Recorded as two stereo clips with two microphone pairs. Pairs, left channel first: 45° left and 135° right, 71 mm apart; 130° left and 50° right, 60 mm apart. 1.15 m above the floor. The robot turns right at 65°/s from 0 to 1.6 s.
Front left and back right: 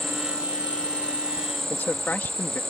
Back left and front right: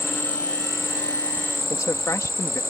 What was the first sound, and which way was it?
An insect, 170° left.